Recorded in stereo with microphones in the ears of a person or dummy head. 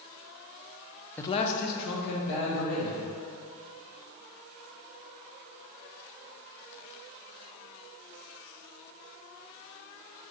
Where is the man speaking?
5° left (ahead or behind), 0.5 m; by 3.0 s 70° left (ahead or behind), 2.5 m.